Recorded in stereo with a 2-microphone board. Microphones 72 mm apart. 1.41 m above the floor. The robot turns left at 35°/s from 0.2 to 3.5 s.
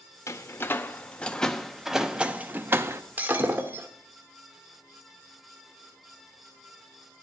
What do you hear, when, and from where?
0.3 s a door slam: 40° left (ahead or behind), 0.6 m; by 3.0 s 35° right (ahead or behind), 0.6 m
3.2 s breaking glass: 25° right (ahead or behind), 1.2 m; by 3.9 s 30° right (ahead or behind), 1.2 m